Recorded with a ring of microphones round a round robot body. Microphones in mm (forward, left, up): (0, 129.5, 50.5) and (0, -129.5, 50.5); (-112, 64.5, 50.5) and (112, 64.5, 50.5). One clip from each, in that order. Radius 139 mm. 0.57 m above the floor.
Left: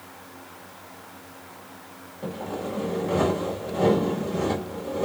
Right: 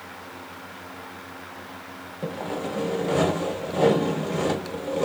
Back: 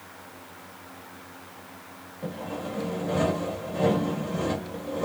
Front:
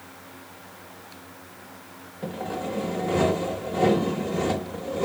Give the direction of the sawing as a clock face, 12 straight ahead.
2 o'clock.